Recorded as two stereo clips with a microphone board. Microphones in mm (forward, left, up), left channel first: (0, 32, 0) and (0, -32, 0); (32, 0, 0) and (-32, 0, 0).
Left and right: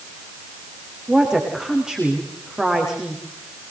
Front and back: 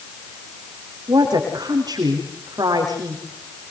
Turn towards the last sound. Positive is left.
turn(degrees=-170)